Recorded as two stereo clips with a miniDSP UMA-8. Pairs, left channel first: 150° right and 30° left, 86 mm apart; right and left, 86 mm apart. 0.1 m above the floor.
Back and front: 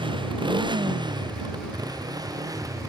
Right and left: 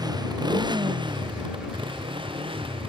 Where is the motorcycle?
50° left; by 2.9 s 80° left.